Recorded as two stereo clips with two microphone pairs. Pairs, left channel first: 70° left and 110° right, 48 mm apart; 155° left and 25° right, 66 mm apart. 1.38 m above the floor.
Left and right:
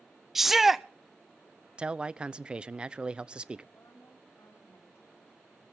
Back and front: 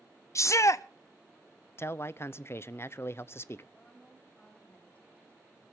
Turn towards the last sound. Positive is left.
turn(degrees=85)